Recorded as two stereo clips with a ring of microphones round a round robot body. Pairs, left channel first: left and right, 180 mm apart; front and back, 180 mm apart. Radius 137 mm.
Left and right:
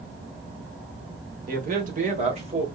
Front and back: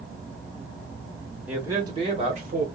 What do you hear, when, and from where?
1.5 s a man speaking: 95° right, 1.2 m; by 2.7 s 145° right, 1.4 m